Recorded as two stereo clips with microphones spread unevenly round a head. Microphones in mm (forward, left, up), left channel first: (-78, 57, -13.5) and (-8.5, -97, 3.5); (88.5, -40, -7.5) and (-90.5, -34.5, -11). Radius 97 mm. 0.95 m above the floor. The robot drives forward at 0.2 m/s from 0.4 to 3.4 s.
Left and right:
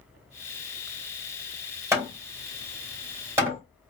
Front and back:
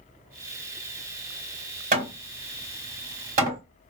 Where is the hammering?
135° right, 1.9 m; by 3.6 s 140° right, 2 m.